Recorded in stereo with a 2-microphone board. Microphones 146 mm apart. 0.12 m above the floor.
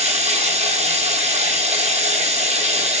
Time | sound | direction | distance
0.0 | running water | 50° right (ahead or behind) | 1.3 m